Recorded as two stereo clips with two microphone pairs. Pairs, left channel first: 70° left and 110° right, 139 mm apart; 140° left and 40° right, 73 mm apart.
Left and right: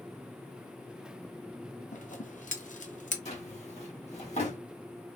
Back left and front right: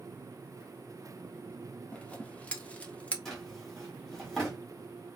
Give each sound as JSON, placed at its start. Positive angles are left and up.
{"t": 1.9, "sound": "scissors", "azimuth_deg": 70, "distance_m": 0.6}
{"t": 3.2, "sound": "a drawer", "azimuth_deg": 60, "distance_m": 1.3}